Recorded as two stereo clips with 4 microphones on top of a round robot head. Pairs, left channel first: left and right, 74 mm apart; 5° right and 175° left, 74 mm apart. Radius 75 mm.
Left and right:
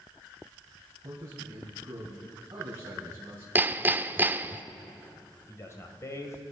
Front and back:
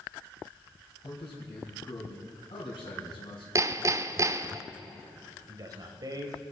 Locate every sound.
1.0 s a man speaking: 25° right, 4 m
3.5 s hammering: 150° right, 0.7 m
5.5 s a man speaking: 140° left, 2 m